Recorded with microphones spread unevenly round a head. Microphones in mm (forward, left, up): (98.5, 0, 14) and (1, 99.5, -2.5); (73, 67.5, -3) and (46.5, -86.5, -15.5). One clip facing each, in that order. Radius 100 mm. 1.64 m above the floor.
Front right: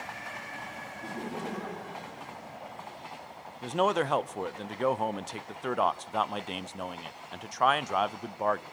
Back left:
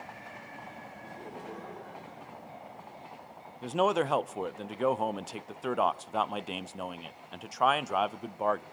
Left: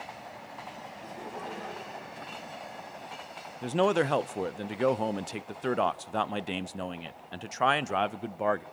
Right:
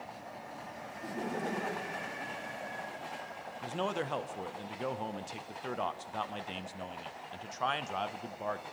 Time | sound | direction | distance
1.0 | laughter | 45° right | 1.6 m
3.6 | a man speaking | 50° left | 0.7 m